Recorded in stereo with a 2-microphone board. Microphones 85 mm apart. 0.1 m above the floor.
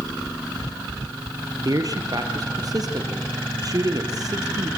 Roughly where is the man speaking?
Right.